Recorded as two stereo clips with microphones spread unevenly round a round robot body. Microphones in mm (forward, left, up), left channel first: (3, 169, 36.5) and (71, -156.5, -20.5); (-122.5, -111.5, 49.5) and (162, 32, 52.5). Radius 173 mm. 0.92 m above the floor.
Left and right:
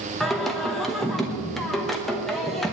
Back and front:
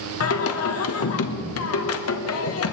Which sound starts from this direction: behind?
Singing, at 0.2 s.